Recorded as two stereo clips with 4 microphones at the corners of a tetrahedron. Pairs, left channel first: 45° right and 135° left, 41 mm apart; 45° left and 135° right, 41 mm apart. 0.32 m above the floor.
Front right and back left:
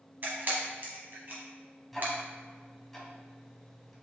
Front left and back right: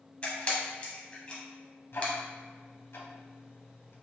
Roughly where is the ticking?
Ahead left.